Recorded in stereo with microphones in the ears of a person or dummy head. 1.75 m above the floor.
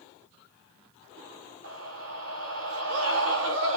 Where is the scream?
80° right, 3 m.